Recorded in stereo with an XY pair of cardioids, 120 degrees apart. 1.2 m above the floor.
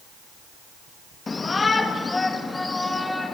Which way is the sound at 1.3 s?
25° left.